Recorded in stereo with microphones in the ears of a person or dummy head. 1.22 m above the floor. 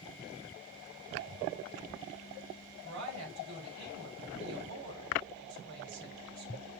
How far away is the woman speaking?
About 5 m.